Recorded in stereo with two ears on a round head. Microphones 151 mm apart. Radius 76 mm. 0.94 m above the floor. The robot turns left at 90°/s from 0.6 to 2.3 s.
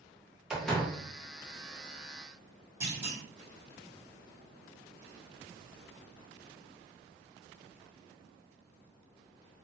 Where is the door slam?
175° right, 0.9 m; by 1.0 s 150° left, 0.9 m.